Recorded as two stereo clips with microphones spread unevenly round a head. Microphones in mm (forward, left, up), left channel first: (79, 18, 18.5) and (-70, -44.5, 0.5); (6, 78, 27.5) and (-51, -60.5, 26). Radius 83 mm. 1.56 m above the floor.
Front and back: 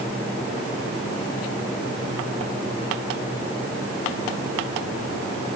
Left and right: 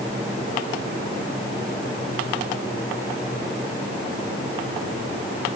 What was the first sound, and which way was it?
Only background noise.